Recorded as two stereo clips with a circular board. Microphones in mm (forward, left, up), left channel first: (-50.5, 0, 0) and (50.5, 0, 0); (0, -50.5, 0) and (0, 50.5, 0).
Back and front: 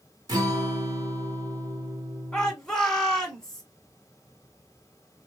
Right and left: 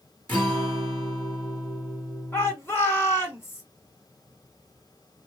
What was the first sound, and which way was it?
A guitar, 25° right.